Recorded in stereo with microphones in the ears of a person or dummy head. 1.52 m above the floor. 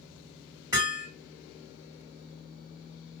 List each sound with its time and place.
0.7 s hammering: 10° right (ahead or behind), 1.5 m